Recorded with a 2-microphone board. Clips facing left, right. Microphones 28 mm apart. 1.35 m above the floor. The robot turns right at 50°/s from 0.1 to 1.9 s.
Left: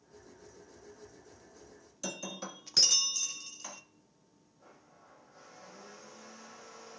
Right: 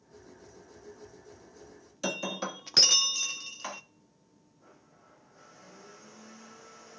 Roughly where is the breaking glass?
Right.